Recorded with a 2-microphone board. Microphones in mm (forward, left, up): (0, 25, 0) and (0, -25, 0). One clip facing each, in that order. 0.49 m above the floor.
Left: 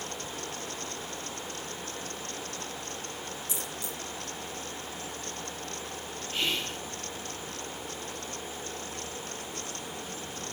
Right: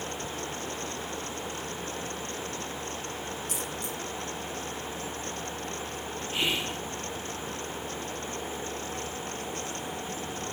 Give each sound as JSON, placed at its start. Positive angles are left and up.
{"t": 3.5, "sound": "a dropped coin", "side_deg": -50, "distance_m": 4.5}
{"t": 6.3, "sound": "whispering", "side_deg": -15, "distance_m": 1.2}